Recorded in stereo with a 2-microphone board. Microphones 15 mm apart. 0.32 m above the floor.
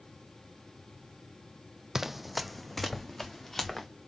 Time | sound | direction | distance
1.9 | running footsteps | 35° right (ahead or behind) | 0.5 m